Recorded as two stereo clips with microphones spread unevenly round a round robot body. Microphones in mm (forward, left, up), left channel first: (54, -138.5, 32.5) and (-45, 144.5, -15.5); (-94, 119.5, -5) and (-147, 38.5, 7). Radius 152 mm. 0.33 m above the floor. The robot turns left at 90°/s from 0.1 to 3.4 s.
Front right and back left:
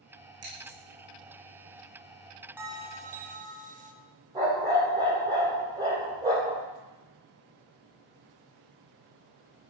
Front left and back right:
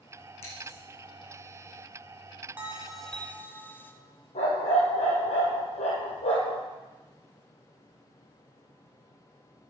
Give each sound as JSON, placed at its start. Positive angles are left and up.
{"t": 0.4, "sound": "scissors", "azimuth_deg": 65, "distance_m": 4.5}
{"t": 2.6, "sound": "a bell", "azimuth_deg": 170, "distance_m": 0.8}
{"t": 4.3, "sound": "a dog barking", "azimuth_deg": 30, "distance_m": 2.5}